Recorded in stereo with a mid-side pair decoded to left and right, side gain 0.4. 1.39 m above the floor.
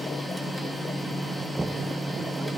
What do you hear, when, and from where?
0.0 s a machine running: 5° left, 2.5 m
1.6 s knocking: 20° right, 0.6 m